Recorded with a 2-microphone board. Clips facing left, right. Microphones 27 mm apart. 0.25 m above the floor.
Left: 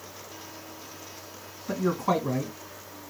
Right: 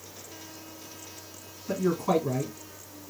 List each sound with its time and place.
1.7 s a man speaking: 25° left (ahead or behind), 1.5 m